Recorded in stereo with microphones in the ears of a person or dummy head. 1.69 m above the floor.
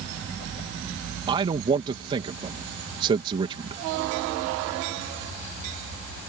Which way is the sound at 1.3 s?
25° right (ahead or behind).